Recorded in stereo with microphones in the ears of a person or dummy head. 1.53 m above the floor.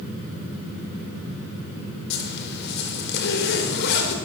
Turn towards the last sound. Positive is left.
turn(degrees=65)  # may be behind; listen again after turning